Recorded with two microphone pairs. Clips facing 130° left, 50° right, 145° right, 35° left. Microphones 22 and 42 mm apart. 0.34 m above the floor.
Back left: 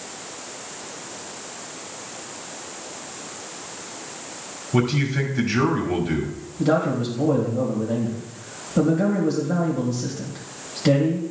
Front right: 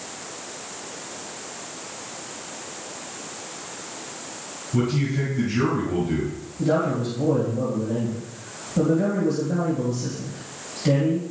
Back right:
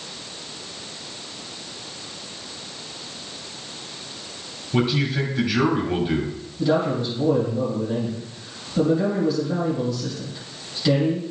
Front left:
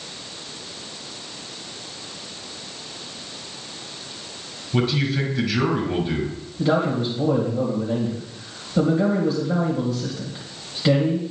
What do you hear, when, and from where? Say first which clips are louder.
4.7 s a man speaking: back left 2 dB, even; 135° left, 1.9 m
6.6 s a man speaking: back left 1 dB, even; 90° left, 2 m